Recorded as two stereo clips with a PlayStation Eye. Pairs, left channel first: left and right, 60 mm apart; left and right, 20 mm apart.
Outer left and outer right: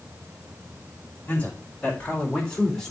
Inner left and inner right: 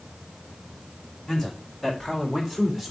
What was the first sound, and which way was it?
A man speaking, 20° left (ahead or behind).